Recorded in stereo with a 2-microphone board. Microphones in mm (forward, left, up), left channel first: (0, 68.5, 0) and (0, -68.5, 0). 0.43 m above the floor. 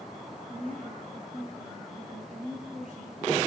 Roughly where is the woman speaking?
Right.